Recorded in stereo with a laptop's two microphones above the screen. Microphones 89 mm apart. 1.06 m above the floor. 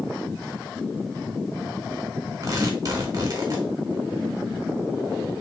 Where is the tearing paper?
40° right (ahead or behind), 1.3 m.